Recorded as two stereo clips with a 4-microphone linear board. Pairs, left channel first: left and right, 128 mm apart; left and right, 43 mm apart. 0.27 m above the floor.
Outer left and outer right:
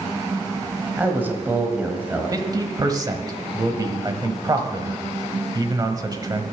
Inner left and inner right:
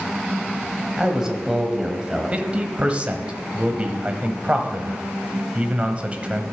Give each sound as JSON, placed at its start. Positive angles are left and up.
{"t": 1.0, "sound": "a man speaking", "side_deg": -15, "distance_m": 1.4}
{"t": 2.3, "sound": "a man speaking", "side_deg": -30, "distance_m": 1.1}